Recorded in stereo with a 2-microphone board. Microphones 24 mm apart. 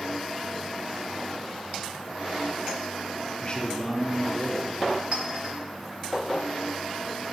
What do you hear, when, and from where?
3.4 s a man speaking: 40° left (ahead or behind), 0.8 m; by 5.0 s 60° right (ahead or behind), 2.0 m
5.1 s a clink: 60° right (ahead or behind), 1.2 m